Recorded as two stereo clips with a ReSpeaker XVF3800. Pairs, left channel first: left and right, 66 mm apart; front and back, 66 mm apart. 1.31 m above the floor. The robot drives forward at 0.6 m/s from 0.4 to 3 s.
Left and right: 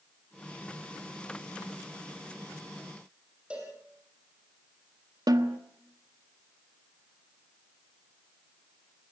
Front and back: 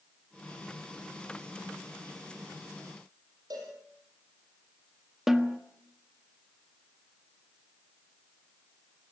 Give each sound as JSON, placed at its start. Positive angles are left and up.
{"t": 3.5, "sound": "a cowbell", "azimuth_deg": -165, "distance_m": 7.0}
{"t": 5.3, "sound": "a snare drum", "azimuth_deg": -95, "distance_m": 1.5}